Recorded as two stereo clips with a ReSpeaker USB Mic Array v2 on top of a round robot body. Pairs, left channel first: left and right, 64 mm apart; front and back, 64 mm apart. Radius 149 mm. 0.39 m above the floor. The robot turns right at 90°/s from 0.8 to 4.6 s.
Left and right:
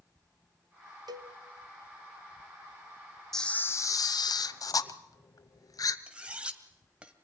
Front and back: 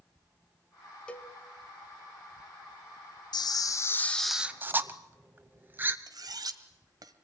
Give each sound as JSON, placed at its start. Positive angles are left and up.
{"t": 1.1, "sound": "a cowbell", "azimuth_deg": -75, "distance_m": 0.5}
{"t": 3.3, "sound": "a camera shutter", "azimuth_deg": 5, "distance_m": 0.9}
{"t": 6.1, "sound": "cutlery clinking", "azimuth_deg": -165, "distance_m": 1.9}